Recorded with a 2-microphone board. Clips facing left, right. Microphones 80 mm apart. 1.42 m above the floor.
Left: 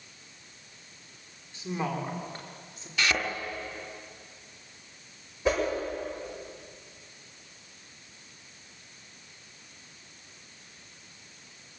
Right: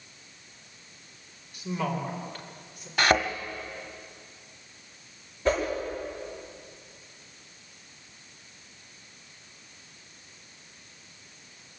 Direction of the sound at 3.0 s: 50° right (ahead or behind).